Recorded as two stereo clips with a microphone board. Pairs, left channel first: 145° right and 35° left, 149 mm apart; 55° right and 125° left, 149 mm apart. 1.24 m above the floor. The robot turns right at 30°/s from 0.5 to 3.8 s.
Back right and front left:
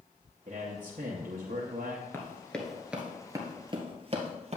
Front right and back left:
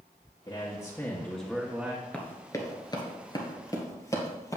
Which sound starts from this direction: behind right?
Running footsteps, at 2.1 s.